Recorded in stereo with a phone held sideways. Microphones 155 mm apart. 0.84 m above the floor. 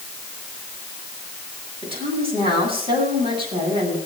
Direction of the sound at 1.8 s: 35° right (ahead or behind).